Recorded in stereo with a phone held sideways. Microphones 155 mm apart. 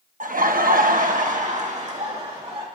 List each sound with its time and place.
0.2 s laughter: 60° right (ahead or behind), 0.9 m; by 2.6 s 40° right (ahead or behind), 2 m